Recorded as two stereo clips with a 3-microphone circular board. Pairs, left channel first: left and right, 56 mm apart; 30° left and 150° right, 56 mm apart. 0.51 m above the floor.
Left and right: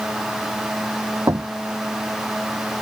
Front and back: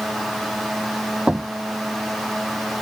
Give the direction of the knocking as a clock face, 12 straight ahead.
3 o'clock.